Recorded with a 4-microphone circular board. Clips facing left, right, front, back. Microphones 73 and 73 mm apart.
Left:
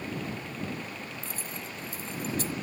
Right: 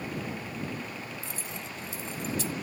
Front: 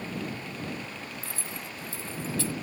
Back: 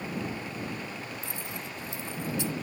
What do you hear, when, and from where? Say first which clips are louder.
1.2 s keys jangling: even, back 1 dB; 115° left